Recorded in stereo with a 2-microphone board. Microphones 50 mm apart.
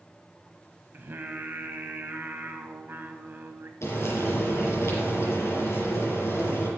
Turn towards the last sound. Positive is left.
turn(degrees=65)  # may be behind; listen again after turning